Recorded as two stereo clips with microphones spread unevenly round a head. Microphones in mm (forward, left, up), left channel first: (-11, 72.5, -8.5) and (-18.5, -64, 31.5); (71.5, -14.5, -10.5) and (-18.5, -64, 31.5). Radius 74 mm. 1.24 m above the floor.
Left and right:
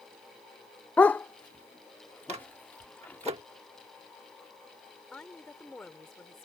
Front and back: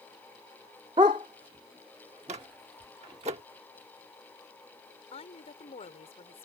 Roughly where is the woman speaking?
Ahead.